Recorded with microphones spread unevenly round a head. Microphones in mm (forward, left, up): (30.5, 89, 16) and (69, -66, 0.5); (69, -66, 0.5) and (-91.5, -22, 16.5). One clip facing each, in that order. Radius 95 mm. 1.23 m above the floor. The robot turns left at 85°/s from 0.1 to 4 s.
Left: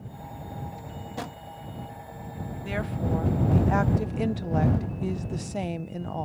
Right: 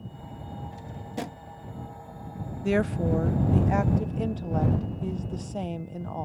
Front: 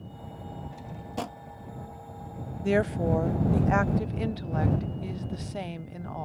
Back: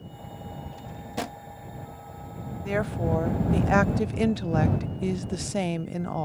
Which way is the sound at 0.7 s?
95° right.